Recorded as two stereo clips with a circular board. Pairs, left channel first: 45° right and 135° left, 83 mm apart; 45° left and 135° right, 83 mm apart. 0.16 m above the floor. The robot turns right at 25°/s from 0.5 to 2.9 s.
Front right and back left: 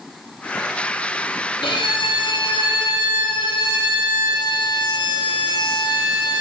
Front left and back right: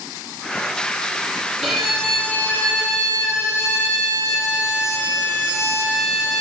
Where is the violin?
50° right, 3.5 m; by 6.4 s 20° right, 3.5 m.